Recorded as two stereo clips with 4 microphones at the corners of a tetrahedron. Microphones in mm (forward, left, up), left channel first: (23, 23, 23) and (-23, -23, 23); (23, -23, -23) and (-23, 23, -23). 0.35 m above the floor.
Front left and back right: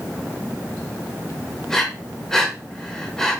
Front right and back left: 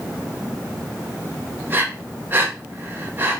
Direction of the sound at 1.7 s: 125° left.